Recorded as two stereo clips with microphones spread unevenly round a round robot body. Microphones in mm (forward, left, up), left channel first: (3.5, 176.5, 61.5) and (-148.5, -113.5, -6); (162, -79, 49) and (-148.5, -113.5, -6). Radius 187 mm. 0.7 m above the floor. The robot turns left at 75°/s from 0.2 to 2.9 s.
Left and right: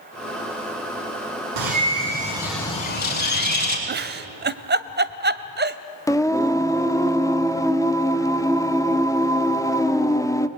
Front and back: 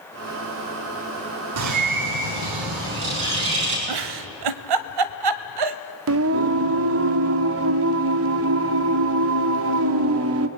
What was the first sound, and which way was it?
A bird, 135° right.